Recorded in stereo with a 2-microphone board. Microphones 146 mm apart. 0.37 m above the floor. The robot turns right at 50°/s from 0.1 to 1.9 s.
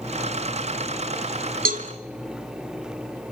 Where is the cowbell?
80° right, 0.9 m; by 1.9 s 70° right (ahead or behind), 0.9 m.